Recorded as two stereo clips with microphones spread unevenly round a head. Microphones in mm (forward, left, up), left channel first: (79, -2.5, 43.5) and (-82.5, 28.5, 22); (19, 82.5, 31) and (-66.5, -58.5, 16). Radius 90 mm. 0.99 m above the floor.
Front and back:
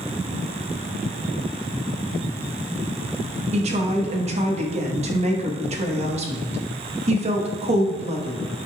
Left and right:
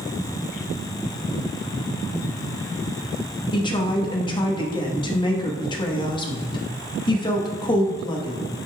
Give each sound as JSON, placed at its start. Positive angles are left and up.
{"t": 3.5, "sound": "a woman speaking", "azimuth_deg": 120, "distance_m": 1.2}